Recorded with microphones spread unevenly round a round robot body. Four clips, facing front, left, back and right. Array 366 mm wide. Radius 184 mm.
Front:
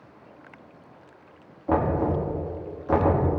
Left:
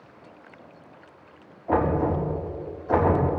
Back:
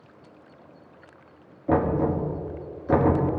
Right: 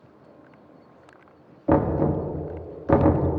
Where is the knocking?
105° right, 1.4 m.